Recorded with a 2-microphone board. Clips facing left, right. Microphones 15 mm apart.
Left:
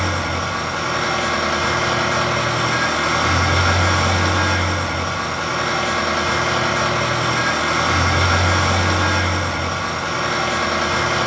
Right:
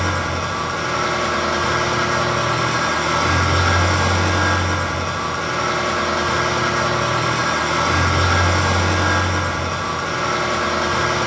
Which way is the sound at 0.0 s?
40° left (ahead or behind).